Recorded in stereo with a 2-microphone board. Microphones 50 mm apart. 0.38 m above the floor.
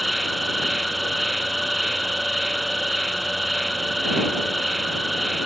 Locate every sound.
0.0 s an insect: centre (ahead or behind)